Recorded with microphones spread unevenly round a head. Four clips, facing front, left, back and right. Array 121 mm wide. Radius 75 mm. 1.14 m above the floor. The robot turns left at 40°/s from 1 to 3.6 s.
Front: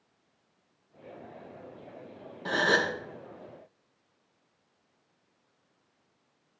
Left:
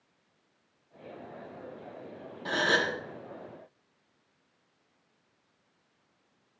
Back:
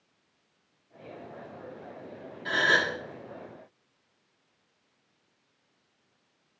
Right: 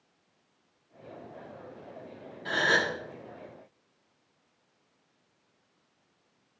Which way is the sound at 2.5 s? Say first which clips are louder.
Right 1 dB, even; 5° left.